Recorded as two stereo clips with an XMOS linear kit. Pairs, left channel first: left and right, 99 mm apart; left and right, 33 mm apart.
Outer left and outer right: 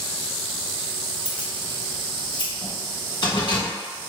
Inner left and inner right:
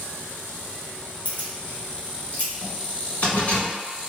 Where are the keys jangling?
55° left (ahead or behind), 1.7 m.